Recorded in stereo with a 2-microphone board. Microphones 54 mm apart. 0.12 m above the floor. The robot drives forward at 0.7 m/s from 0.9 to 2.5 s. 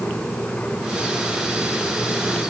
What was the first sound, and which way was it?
Only background noise.